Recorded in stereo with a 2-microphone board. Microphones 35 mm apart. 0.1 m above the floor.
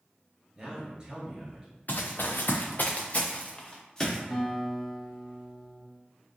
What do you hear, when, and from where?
0.6 s a man speaking: 25° right (ahead or behind), 1.5 m
1.9 s running footsteps: 55° left (ahead or behind), 0.7 m; by 4.2 s 15° left (ahead or behind), 1.4 m
4.3 s a guitar: 5° left (ahead or behind), 1.2 m